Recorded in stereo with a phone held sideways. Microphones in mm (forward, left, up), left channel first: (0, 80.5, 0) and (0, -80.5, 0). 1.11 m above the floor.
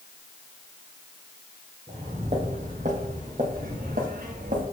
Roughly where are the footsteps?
Right.